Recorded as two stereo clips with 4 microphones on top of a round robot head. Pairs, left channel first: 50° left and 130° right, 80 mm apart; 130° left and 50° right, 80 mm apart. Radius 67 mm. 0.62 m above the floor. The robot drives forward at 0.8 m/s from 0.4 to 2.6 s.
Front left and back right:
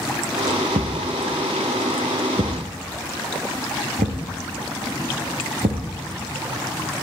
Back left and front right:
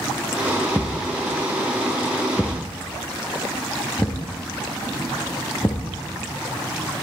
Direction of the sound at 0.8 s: 140° right.